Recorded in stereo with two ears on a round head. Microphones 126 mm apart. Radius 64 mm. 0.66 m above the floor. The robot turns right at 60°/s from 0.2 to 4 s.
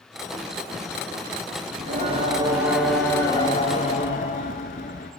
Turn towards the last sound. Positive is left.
turn(degrees=70)